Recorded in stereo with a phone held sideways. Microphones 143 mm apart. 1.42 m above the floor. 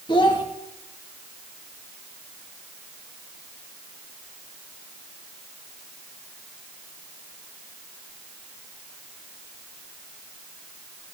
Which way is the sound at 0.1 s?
35° left (ahead or behind).